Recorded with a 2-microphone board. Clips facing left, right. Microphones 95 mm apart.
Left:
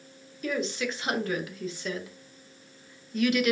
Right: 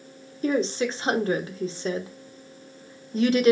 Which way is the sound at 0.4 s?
30° right (ahead or behind).